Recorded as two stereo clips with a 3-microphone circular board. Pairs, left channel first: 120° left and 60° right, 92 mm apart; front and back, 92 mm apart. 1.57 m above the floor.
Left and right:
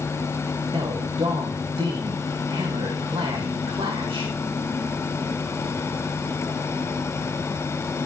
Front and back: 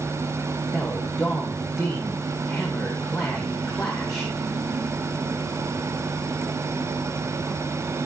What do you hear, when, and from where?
0.7 s a man speaking: 90° right, 1.9 m